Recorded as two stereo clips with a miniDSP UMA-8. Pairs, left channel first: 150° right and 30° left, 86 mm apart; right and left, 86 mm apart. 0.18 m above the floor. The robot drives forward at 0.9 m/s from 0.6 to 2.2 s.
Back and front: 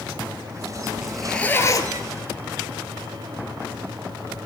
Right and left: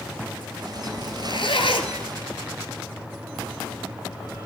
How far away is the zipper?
About 0.9 m.